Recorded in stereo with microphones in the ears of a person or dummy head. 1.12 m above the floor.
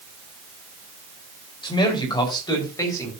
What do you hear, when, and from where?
1.6 s a man speaking: 25° left (ahead or behind), 5 m; by 3.1 s 15° left (ahead or behind), 6.5 m